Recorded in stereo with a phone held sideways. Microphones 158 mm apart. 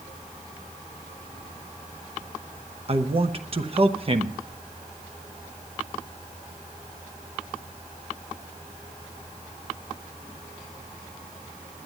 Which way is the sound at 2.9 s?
40° right (ahead or behind).